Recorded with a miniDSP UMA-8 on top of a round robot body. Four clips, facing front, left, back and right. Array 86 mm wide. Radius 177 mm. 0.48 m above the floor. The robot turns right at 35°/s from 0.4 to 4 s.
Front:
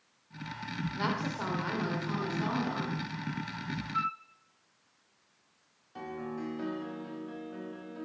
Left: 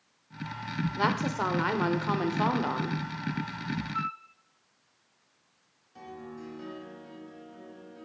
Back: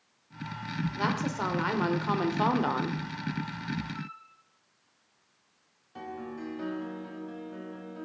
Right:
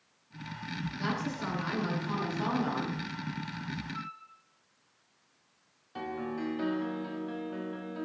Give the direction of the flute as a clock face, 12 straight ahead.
11 o'clock.